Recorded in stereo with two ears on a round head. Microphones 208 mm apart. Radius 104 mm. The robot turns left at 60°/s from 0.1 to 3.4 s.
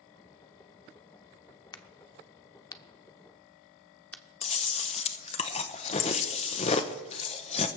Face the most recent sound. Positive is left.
turn(degrees=25)  # may be behind; listen again after turning